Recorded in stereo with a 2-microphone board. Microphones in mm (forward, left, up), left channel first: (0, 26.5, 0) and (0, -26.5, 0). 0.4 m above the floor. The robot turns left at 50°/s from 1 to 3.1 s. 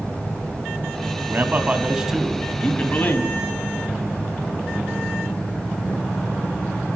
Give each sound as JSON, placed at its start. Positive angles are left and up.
{"t": 1.3, "sound": "a man speaking", "azimuth_deg": -130, "distance_m": 3.0}